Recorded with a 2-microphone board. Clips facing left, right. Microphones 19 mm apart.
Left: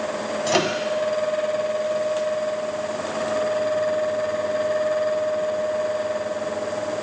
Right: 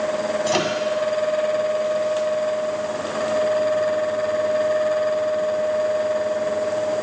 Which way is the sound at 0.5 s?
Centre (ahead or behind).